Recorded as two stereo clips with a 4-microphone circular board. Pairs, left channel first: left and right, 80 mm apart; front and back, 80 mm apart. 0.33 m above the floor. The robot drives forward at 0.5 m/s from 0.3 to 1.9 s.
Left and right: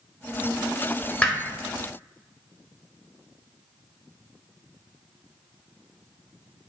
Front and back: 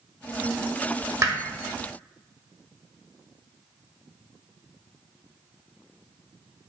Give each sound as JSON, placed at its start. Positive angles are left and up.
{"t": 1.2, "sound": "hammering", "azimuth_deg": 155, "distance_m": 0.6}